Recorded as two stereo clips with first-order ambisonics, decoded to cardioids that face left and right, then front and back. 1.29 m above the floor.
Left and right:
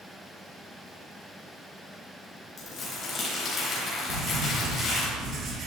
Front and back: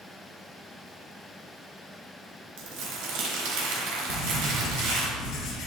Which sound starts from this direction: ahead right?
Writing, at 4.1 s.